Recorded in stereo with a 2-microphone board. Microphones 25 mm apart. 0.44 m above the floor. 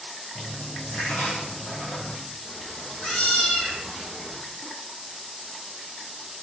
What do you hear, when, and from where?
0.3 s a dropped coin: 90° left, 9 m
2.4 s a cat meowing: 55° left (ahead or behind), 8.5 m